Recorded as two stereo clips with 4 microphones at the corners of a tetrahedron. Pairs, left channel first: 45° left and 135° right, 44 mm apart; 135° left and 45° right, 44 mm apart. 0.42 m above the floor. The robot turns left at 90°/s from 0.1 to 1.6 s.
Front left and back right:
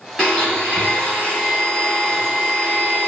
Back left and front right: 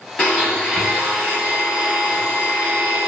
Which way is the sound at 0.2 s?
95° left.